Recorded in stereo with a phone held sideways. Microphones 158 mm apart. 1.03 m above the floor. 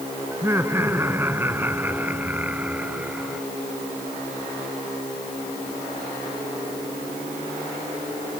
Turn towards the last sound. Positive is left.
turn(degrees=-5)  # may be behind; listen again after turning